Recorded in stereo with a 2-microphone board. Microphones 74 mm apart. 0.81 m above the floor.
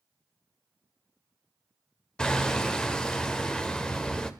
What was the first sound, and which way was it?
Hammering, 10° left (ahead or behind).